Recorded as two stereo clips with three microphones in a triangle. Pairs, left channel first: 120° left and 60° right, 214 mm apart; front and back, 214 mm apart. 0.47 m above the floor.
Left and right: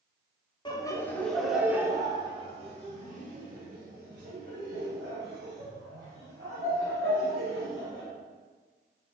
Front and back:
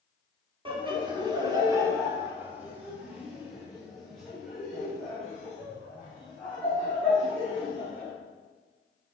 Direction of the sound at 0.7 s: 155° left.